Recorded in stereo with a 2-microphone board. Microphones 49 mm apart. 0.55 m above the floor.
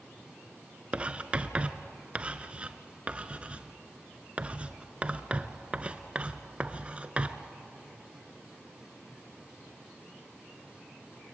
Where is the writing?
25° right (ahead or behind), 1.0 m.